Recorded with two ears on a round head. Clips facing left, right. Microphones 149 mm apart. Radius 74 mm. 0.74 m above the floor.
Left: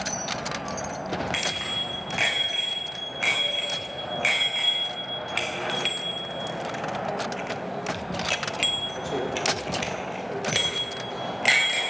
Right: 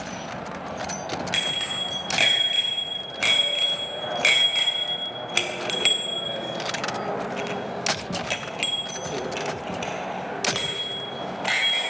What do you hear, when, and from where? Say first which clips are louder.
1.3 s a bicycle bell: left 1 dB; 45° right (ahead or behind), 4.5 m; by 11.9 s 25° left (ahead or behind), 3.5 m